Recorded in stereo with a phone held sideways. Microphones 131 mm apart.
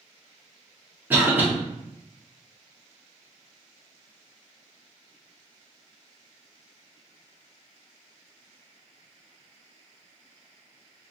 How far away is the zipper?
I don't hear a zipper.